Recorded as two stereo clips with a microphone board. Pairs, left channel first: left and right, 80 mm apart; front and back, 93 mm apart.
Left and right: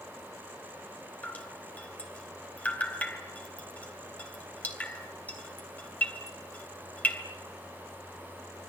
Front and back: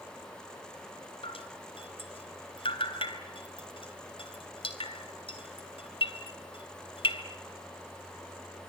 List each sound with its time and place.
1.2 s dripping: 20° left, 3 m